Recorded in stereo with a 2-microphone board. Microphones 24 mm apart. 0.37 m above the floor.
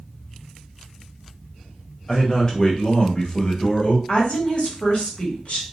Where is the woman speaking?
55° left (ahead or behind), 1.6 m.